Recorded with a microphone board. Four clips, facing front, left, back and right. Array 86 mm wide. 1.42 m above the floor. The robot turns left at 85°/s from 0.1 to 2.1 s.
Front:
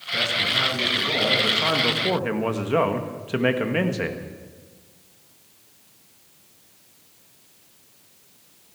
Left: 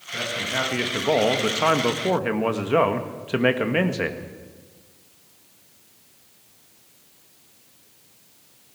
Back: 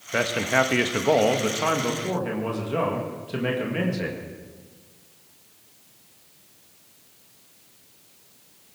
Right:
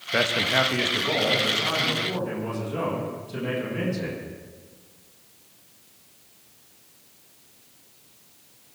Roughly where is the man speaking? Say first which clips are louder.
Right 5 dB, back 5 dB; behind right.